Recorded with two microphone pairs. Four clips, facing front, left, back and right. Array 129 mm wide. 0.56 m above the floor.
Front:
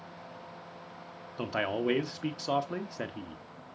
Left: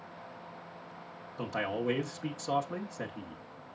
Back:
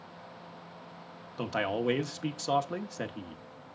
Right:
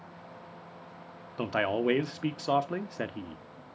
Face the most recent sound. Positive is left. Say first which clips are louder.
# right 5 dB, even
turn(degrees=-95)